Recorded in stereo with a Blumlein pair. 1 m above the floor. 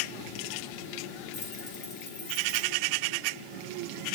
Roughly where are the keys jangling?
Ahead left.